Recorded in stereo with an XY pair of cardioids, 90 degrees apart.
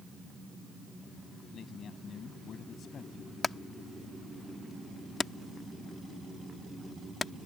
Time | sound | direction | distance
1.5 | a man speaking | 65° left | ?
3.4 | hammering | 40° left | ?